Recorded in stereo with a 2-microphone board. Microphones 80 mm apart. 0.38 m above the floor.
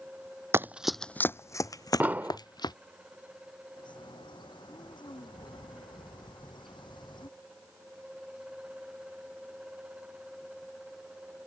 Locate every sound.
0.5 s running footsteps: 30° right (ahead or behind); by 2.7 s 65° left (ahead or behind)
2.0 s an explosion: 20° right (ahead or behind)
3.8 s a bird: 75° left (ahead or behind)